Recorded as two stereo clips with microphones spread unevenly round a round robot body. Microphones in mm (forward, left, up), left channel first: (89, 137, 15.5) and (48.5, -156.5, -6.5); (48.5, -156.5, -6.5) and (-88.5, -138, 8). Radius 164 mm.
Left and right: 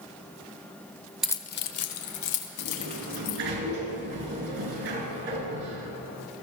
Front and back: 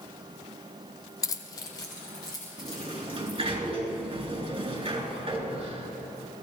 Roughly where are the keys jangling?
Ahead.